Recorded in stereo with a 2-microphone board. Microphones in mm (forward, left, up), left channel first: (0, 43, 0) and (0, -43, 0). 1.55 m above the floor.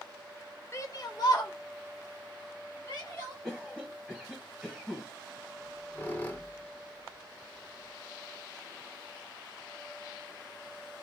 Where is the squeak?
25° left (ahead or behind), 0.8 m.